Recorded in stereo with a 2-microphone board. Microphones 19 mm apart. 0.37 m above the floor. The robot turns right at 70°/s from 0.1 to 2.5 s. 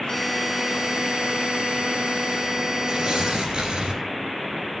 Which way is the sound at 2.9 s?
50° right (ahead or behind).